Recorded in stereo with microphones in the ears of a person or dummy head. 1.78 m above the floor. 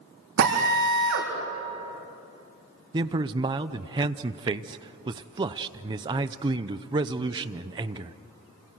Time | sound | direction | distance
0.4 | a drill | 70° right (ahead or behind) | 4.5 m
2.9 | a man speaking | 25° right (ahead or behind) | 0.8 m